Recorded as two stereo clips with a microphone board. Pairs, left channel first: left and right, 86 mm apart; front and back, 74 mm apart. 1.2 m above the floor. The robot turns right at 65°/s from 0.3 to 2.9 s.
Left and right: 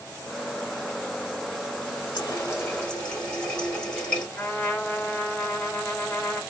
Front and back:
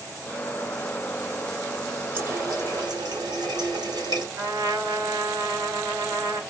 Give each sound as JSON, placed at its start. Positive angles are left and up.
{"t": 2.1, "sound": "a running tap", "azimuth_deg": 120, "distance_m": 1.3}
{"t": 4.4, "sound": "a trumpet", "azimuth_deg": 165, "distance_m": 1.2}